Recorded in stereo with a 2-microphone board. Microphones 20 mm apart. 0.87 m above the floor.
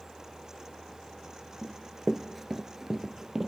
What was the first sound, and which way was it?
Running footsteps, 10° left (ahead or behind).